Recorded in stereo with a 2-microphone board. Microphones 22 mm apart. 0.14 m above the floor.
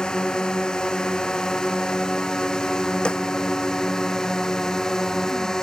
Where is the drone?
45° left (ahead or behind); by 5.6 s 30° left (ahead or behind).